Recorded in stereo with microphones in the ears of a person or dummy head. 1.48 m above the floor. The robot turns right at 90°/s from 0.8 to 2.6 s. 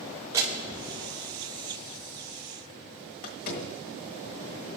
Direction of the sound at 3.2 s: 45° left (ahead or behind).